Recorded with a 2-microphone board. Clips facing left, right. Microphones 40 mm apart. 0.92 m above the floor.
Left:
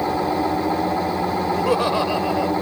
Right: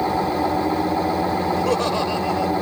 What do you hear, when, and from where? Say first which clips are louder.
1.5 s laughter: left 1 dB; 10° left (ahead or behind)